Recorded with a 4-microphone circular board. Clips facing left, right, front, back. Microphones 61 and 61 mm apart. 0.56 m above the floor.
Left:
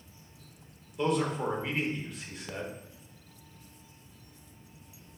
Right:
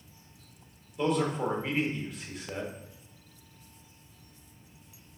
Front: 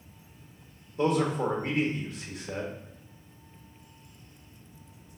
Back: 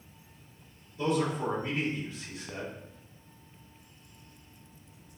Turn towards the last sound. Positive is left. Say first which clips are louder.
# right 1 dB, front 3 dB
turn(degrees=0)